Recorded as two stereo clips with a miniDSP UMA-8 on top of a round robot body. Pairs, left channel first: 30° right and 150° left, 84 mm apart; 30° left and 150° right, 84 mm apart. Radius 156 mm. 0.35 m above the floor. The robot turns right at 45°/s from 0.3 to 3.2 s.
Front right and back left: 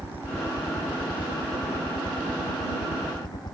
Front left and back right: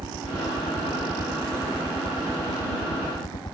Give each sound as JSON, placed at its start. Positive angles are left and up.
{"t": 0.0, "sound": "a helicopter", "azimuth_deg": -145}